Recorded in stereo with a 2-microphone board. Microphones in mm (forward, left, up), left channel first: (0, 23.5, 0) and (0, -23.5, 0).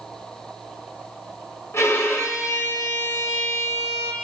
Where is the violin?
70° left (ahead or behind), 0.6 m.